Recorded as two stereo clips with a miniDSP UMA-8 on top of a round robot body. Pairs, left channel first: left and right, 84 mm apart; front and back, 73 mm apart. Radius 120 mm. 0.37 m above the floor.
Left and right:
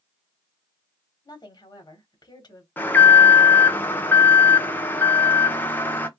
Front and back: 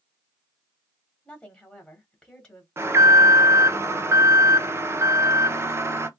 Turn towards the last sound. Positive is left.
turn(degrees=145)